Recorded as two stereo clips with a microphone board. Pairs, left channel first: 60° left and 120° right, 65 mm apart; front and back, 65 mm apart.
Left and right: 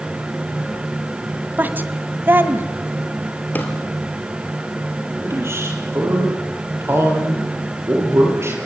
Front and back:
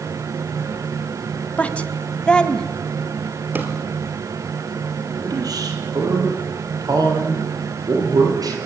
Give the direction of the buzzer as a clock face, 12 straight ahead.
No buzzer in this recording.